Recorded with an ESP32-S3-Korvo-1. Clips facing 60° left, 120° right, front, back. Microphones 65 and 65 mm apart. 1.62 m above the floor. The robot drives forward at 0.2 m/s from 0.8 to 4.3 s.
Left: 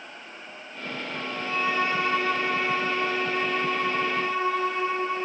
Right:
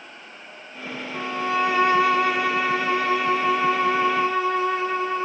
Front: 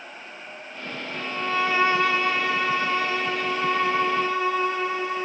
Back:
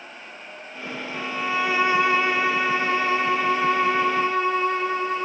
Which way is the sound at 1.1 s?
95° right.